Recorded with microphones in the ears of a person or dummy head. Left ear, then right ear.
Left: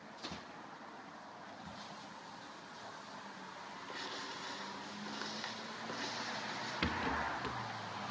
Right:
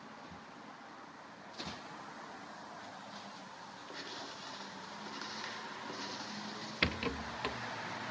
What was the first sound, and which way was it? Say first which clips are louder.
Writing: left 1 dB; 10° left (ahead or behind).